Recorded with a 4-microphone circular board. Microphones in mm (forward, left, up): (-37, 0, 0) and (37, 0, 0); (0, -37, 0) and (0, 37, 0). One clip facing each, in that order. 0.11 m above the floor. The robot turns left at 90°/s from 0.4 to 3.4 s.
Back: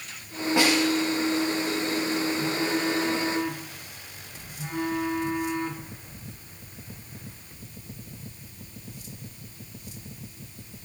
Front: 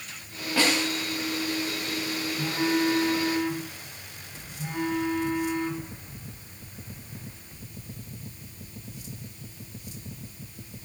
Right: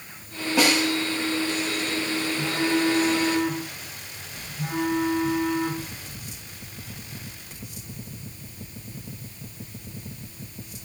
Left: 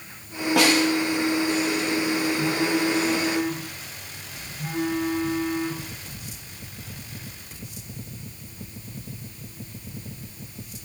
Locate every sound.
0.6 s a snare drum: 110° left, 7 m; by 0.9 s 80° left, 7 m
2.4 s a phone buzzing: 30° right, 5.5 m; by 5.9 s 125° right, 5.5 m